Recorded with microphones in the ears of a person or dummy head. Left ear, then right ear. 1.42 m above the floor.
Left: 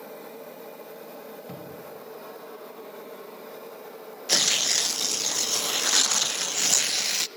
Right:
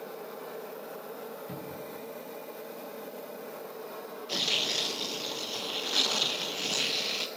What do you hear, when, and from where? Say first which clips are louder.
1.5 s a cupboard door: even; 20° left (ahead or behind), 5.5 m
4.3 s tearing paper: left 6 dB; 55° left (ahead or behind), 0.6 m